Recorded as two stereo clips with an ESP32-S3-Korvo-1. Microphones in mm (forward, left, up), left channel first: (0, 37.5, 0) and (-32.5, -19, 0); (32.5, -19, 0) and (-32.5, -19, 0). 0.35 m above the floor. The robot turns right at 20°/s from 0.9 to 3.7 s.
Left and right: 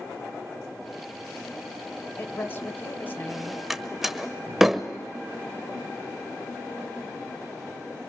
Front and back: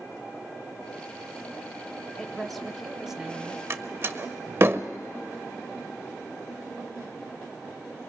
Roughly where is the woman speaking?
Left.